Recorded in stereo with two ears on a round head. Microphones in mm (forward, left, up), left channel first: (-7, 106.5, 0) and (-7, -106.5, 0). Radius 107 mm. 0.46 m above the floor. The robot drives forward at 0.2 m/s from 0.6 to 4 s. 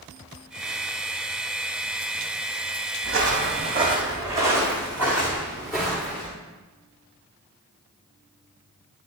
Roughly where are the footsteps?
Right.